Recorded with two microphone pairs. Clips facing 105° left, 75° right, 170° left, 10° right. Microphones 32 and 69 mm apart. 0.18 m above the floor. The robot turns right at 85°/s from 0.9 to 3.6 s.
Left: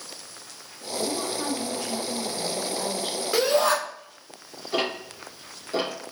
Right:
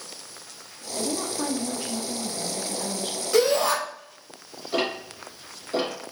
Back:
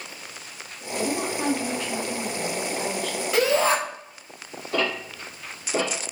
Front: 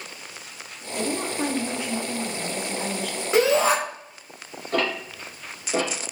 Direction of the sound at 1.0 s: 110° right.